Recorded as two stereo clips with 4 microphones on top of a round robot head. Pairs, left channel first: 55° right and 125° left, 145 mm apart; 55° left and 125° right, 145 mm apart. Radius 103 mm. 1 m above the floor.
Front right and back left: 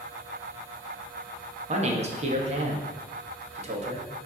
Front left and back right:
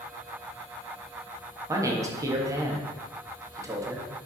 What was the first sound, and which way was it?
A man speaking, 165° left.